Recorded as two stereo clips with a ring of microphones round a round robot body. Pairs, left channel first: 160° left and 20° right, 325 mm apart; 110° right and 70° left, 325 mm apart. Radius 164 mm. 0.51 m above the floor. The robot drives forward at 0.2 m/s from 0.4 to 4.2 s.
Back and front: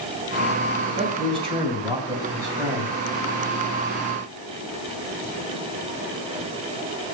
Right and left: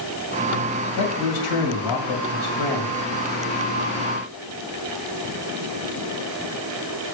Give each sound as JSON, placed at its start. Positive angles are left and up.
{"t": 1.0, "sound": "a man speaking", "azimuth_deg": -95, "distance_m": 2.5}